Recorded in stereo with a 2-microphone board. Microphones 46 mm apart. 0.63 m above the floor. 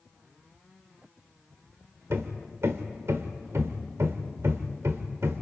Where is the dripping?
No dripping in this recording.